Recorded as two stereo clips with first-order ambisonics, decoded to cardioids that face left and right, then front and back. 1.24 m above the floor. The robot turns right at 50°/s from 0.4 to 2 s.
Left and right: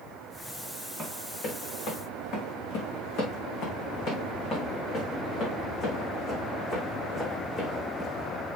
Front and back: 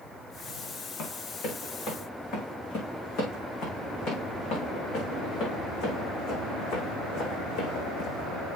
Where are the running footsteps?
10° left, 6.5 m; by 8.3 s 15° left, 4.5 m.